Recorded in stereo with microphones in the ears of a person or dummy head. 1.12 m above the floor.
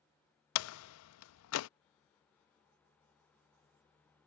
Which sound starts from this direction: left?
A door slam, at 0.6 s.